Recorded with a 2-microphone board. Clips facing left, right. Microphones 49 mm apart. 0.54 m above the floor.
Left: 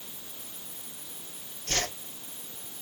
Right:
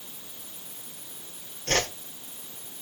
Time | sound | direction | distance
1.7 | a whoosh | 60° right (ahead or behind) | 4 m